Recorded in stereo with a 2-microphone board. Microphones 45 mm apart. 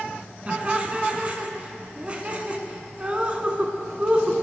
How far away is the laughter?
About 1.5 m.